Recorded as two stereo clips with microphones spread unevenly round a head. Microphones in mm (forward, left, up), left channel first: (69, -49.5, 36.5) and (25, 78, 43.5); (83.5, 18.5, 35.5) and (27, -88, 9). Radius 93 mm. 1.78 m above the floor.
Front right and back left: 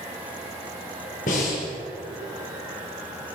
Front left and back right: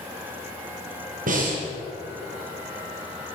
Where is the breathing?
115° right, 6.5 m.